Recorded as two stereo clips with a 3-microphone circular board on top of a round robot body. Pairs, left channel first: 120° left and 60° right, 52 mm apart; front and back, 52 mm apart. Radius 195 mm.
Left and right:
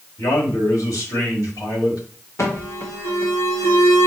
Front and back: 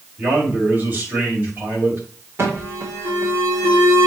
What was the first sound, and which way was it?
A man speaking, 125° left.